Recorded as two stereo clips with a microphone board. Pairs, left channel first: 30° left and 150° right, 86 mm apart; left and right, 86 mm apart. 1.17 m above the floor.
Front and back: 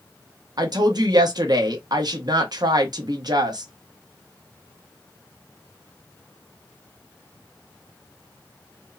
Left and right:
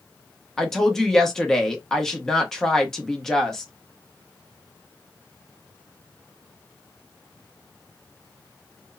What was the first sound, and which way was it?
A woman speaking, 175° left.